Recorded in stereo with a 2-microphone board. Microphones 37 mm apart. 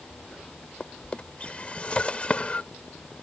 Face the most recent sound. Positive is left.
turn(degrees=35)  # may be behind; listen again after turning